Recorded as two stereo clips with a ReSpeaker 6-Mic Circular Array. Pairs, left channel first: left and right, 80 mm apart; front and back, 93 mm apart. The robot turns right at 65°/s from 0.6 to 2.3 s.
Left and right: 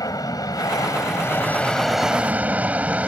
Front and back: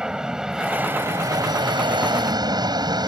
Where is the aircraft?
100° left; by 3.1 s 160° right.